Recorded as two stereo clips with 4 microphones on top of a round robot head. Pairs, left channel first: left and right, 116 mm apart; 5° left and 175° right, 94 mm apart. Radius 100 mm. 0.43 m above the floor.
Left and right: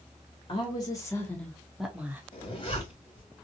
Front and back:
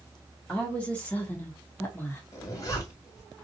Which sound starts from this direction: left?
A woman speaking, at 0.5 s.